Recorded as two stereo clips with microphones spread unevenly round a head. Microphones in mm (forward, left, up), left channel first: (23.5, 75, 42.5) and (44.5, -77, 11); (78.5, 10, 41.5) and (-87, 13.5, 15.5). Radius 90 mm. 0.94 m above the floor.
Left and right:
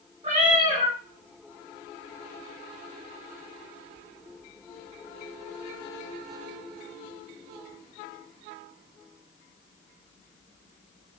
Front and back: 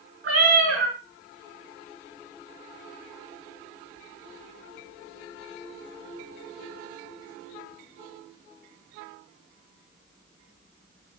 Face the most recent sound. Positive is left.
turn(degrees=-150)